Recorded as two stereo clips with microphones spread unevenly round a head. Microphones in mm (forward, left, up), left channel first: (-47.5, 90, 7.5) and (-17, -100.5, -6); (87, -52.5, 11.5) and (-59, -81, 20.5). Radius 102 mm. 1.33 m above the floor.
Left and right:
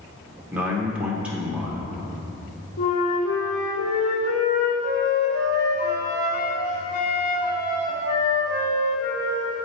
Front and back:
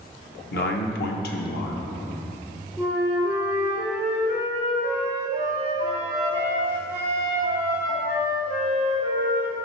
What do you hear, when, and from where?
0.5 s a man speaking: 5° left, 0.8 m
2.8 s a flute: 80° left, 2 m